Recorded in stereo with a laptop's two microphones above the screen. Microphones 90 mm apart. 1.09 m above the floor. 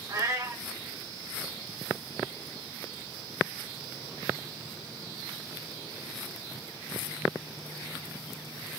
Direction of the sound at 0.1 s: 40° right (ahead or behind).